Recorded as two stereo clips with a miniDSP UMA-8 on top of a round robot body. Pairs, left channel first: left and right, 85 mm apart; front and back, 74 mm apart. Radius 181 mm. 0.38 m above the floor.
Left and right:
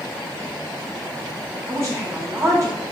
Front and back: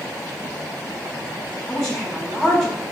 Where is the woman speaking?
80° right, 1.1 m.